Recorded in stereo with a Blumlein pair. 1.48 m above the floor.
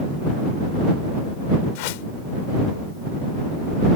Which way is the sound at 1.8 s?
45° left.